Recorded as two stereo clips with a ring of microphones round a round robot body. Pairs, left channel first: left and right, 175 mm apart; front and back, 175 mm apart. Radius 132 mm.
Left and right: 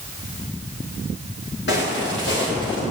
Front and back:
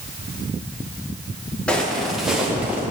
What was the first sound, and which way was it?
Footsteps, 85° left.